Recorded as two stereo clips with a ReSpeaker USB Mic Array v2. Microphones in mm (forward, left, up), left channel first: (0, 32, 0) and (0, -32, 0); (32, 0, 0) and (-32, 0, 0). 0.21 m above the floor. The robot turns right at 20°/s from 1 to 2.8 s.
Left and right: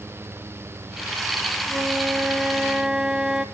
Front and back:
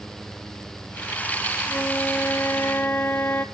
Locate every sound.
1.7 s a flute: 35° right, 0.8 m; by 3.5 s 15° right, 0.8 m